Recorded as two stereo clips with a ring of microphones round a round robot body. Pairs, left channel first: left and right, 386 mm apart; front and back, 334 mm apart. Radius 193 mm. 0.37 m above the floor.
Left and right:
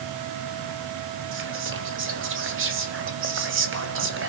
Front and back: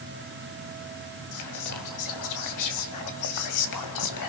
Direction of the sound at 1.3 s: 35° right.